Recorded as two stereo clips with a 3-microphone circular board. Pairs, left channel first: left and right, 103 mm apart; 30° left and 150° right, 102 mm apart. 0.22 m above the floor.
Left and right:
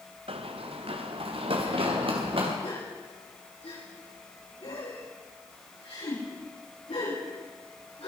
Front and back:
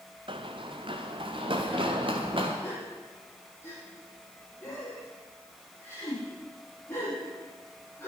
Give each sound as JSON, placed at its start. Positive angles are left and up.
{"t": 0.3, "sound": "running footsteps", "azimuth_deg": -115, "distance_m": 1.7}
{"t": 2.6, "sound": "a gasp", "azimuth_deg": 95, "distance_m": 8.5}